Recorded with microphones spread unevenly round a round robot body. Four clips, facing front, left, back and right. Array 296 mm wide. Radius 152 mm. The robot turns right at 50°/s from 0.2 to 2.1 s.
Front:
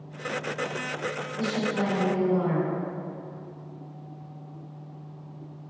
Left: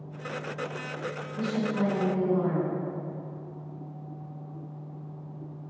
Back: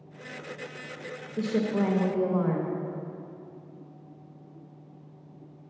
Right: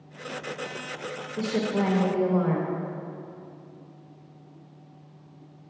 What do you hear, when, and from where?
1.4 s a woman speaking: 160° right, 1.0 m; by 2.8 s 125° right, 1.0 m